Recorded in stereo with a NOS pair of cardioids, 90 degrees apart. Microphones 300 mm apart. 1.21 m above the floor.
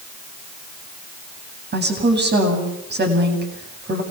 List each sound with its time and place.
1.7 s a woman speaking: 30° right, 8.5 m